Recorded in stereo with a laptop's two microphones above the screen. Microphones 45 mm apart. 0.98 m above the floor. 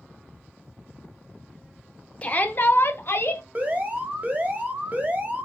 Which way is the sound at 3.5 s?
35° right (ahead or behind).